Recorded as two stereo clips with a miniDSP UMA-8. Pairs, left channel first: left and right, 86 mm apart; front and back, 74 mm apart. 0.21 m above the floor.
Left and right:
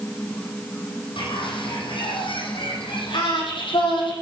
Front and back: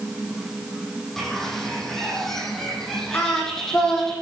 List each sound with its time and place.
1.2 s a bird: 85° left, 8 m
3.1 s singing: 65° left, 8.5 m